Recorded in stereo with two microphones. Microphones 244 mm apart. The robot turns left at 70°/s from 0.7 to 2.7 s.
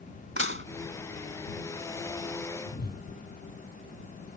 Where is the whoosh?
35° left (ahead or behind); by 3.1 s 40° left (ahead or behind).